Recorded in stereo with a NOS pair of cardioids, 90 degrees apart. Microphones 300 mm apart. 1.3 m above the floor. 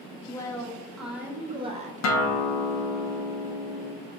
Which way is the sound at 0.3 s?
10° left.